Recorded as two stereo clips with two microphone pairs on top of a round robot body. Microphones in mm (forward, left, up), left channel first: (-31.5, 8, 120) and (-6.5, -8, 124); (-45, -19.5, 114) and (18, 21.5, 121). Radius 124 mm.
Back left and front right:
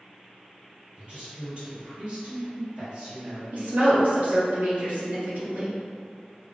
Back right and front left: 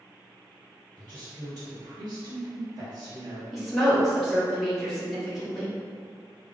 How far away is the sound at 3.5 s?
About 0.9 m.